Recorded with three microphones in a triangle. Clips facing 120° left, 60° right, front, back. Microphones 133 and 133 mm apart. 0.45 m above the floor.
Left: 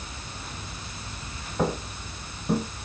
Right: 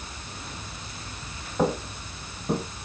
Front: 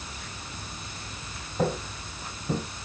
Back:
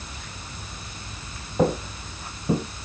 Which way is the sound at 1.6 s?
140° right.